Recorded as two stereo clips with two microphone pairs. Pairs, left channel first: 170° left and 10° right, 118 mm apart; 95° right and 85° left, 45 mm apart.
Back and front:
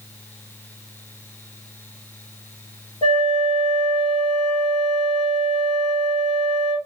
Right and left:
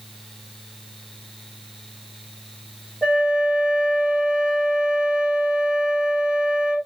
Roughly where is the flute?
Behind.